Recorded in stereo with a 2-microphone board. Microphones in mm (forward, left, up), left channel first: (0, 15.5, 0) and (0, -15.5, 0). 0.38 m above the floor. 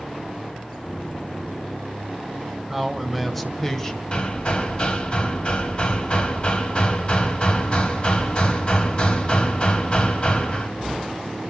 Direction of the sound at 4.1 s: 35° left (ahead or behind).